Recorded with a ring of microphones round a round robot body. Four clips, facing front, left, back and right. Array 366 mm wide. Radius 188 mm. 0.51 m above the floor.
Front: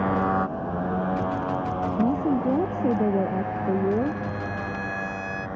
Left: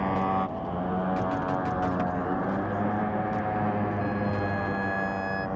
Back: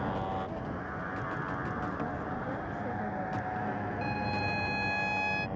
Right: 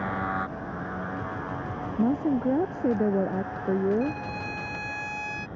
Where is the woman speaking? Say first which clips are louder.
Right 3 dB, front 13 dB; 40° right.